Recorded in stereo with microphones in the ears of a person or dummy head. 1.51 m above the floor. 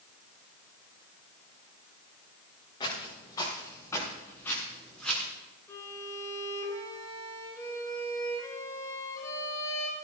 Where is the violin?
20° left (ahead or behind), 3 m.